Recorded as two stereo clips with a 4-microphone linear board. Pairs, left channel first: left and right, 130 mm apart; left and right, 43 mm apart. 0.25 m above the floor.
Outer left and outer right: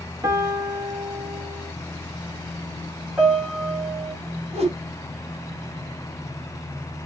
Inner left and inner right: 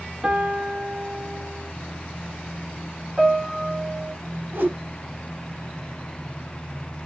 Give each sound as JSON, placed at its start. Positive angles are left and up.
{"t": 0.2, "sound": "a piano", "side_deg": -25, "distance_m": 1.0}
{"t": 3.2, "sound": "a piano", "side_deg": -5, "distance_m": 1.8}
{"t": 4.5, "sound": "a whoosh", "side_deg": -50, "distance_m": 1.3}